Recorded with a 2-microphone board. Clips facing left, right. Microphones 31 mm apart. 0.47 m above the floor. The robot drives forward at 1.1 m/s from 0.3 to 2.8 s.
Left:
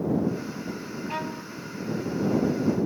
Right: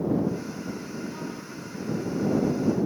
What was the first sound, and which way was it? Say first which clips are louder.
A violin: left 4 dB; 80° left.